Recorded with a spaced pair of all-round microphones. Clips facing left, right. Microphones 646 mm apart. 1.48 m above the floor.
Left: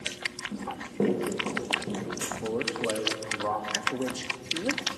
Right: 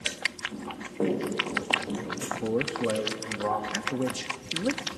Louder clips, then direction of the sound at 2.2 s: Right 5 dB; 45° right (ahead or behind).